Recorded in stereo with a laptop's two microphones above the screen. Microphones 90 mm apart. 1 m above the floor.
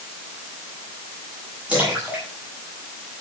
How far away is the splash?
About 8 m.